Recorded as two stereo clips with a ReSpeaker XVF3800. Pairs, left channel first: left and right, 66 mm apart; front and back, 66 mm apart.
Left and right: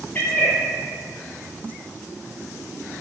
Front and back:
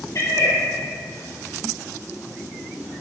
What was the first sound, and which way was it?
A cat meowing, 25° left.